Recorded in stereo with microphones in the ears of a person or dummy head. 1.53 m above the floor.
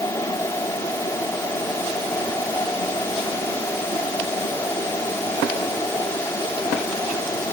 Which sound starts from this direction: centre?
A fan, at 0.0 s.